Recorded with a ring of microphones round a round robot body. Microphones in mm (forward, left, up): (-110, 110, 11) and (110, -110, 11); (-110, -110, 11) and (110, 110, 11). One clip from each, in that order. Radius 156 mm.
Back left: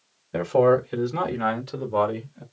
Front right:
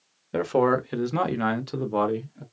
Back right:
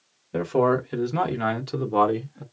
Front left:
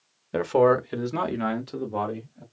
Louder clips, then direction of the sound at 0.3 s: Back left 3 dB, front left 2 dB; 15° left.